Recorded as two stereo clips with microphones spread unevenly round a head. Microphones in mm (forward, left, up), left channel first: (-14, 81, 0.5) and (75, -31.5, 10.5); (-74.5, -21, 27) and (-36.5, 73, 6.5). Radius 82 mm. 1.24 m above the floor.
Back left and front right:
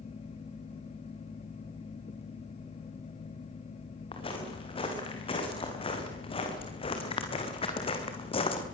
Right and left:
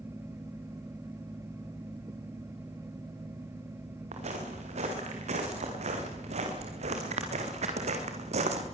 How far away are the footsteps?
About 6 m.